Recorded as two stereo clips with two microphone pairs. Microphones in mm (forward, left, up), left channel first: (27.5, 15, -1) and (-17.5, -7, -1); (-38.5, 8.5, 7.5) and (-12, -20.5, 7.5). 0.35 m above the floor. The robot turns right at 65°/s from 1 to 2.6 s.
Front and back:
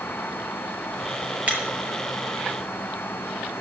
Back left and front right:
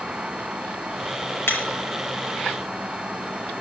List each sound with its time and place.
1.5 s breaking glass: 145° left, 5 m; by 1.6 s 155° left, 5 m